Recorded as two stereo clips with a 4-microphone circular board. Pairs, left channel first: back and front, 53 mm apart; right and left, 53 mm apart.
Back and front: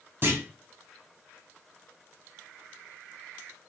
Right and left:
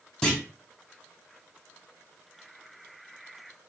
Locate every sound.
0.2 s a clunk: 20° right, 1.1 m